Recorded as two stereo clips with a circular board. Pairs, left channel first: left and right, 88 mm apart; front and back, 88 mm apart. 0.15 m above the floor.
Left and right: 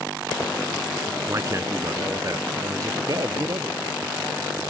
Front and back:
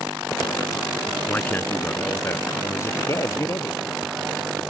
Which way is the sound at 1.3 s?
60° right.